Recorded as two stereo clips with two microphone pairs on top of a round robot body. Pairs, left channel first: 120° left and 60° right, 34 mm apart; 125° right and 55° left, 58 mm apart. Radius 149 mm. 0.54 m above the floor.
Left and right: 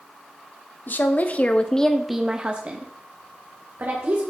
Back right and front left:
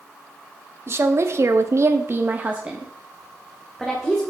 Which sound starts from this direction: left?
A woman speaking, at 0.9 s.